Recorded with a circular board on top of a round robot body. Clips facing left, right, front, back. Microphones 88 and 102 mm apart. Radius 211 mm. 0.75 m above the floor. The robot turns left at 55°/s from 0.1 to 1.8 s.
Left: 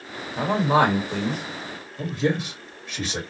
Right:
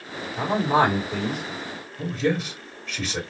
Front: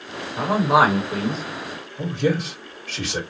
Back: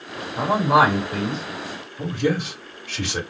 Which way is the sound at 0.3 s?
105° left.